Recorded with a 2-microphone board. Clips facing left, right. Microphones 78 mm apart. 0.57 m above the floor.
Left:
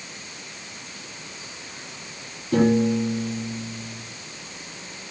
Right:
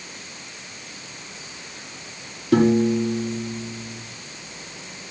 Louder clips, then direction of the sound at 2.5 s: Right 2 dB; 85° right.